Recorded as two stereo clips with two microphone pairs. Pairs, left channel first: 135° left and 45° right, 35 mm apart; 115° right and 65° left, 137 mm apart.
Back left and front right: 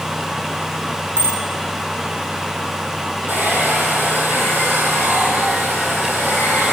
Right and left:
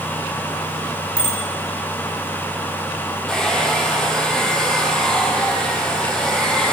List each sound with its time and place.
1.2 s a bicycle bell: 35° right, 7 m
3.3 s a hair dryer: 30° right, 4 m